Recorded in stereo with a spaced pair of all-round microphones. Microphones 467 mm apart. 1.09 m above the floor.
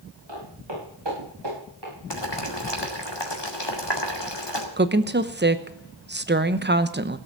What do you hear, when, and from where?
0.3 s footsteps: 65° right (ahead or behind), 8.5 m; by 1.9 s 50° right (ahead or behind), 8.5 m
2.1 s boiling: 60° left (ahead or behind), 2.5 m
4.8 s a woman speaking: 20° right (ahead or behind), 0.9 m